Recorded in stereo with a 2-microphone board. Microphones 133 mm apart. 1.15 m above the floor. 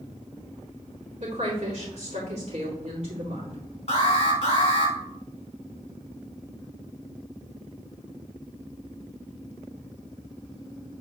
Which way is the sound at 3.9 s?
50° left (ahead or behind).